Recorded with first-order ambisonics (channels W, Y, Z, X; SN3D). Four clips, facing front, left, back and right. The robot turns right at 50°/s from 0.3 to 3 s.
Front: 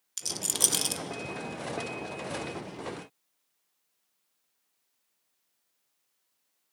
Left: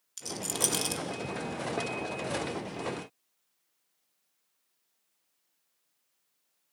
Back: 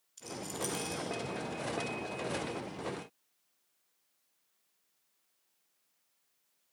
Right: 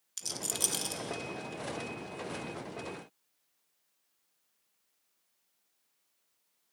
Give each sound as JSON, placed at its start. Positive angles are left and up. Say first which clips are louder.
{"t": 0.2, "sound": "a rattle", "louder": "left 2 dB, front 9 dB", "azimuth_deg": -10, "distance_m": 0.8}